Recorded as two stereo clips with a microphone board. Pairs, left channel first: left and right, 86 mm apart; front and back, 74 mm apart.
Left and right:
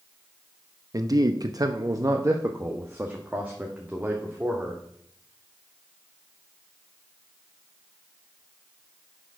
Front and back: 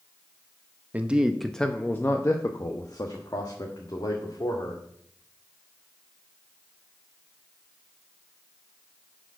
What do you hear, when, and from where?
0.9 s a man speaking: 115° right, 0.7 m; by 4.8 s 10° right, 2 m